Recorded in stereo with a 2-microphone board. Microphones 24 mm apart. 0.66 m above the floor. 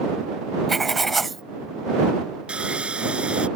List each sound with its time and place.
0.7 s writing: 10° left (ahead or behind)
2.5 s sawing: 45° right (ahead or behind)